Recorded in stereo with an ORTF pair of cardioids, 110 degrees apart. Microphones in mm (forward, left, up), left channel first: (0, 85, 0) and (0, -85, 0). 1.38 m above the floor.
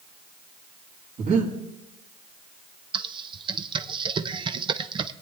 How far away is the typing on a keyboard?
About 0.7 m.